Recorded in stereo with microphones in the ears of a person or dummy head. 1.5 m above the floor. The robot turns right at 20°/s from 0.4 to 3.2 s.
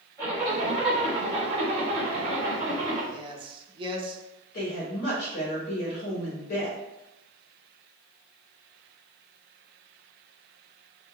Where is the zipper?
150° right, 1.5 m; by 3.0 s 95° right, 1.5 m.